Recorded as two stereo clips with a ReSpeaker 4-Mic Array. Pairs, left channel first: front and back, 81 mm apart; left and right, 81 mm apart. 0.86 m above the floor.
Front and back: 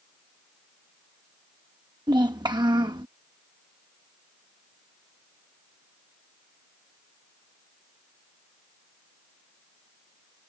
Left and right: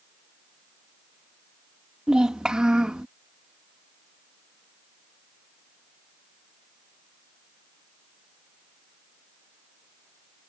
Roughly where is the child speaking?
Behind.